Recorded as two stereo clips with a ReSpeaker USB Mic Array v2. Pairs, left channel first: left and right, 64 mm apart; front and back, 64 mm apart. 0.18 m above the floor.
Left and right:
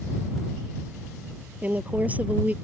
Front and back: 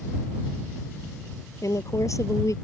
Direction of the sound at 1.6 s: 25° right.